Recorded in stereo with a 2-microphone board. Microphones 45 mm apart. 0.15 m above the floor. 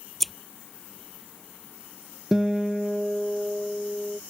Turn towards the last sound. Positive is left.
turn(degrees=-10)  # may be behind; listen again after turning